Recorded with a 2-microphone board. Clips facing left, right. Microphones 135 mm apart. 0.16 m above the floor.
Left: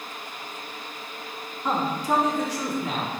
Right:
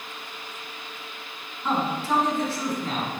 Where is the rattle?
No rattle in this recording.